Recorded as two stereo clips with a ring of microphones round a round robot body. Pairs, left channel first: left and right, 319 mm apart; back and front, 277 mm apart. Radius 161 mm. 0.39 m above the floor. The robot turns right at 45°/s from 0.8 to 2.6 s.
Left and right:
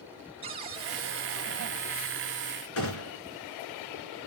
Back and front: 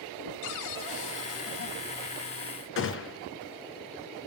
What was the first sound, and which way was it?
A cupboard door, 160° right.